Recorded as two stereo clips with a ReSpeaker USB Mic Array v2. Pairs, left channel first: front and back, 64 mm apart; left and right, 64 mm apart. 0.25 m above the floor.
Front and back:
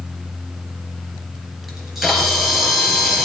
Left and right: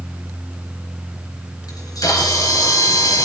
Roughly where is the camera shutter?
Left.